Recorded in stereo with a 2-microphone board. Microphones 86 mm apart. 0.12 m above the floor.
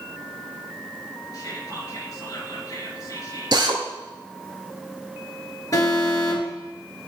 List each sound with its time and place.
1.3 s whispering: 45° left (ahead or behind), 2.5 m
3.5 s a drill: 55° right (ahead or behind), 1.4 m
5.7 s an alarm: 40° left (ahead or behind), 2.5 m